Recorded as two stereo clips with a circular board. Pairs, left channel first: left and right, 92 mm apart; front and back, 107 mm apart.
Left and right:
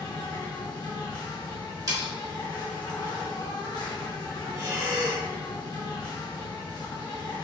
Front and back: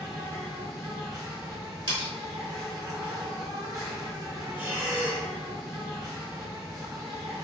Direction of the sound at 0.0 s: 125° left.